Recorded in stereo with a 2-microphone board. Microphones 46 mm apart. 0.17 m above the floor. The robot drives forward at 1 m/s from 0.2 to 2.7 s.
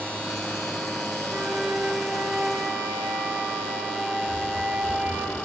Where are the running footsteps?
60° right (ahead or behind), 5 m; by 5.3 s 70° right (ahead or behind), 5 m.